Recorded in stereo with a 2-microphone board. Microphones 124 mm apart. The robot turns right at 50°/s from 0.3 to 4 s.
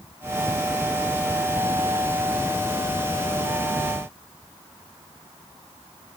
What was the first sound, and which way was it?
Only background noise.